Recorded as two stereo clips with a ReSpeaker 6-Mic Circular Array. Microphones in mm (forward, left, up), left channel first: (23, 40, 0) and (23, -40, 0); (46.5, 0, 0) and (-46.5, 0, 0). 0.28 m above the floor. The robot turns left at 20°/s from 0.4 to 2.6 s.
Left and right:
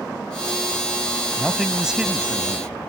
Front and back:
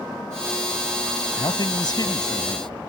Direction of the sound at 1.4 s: Straight ahead.